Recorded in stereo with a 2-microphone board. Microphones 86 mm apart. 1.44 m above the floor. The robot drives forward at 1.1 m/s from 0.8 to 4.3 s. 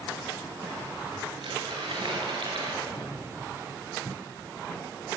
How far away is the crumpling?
About 5.5 m.